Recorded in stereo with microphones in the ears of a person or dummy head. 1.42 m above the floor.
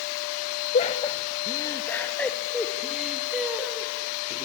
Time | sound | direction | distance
0.7 | laughter | 40° left (ahead or behind) | 1.2 m